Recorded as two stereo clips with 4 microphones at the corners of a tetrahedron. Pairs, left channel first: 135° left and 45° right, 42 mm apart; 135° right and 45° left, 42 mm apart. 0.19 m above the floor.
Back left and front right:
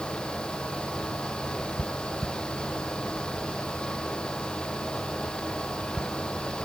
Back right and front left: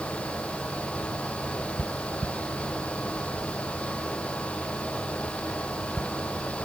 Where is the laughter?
I don't hear laughter.